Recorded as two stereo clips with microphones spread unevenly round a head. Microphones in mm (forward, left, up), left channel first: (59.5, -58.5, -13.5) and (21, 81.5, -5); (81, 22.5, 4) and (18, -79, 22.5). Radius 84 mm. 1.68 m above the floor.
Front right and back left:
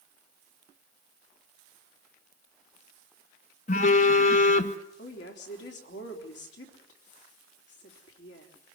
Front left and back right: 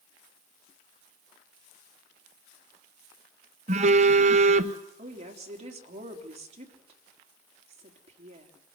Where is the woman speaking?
95° right, 3.5 m.